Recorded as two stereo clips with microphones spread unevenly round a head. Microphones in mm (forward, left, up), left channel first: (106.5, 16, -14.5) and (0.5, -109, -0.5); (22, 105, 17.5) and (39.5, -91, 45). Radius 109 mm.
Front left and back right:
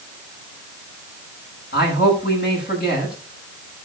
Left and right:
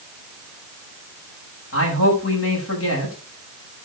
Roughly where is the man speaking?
Left.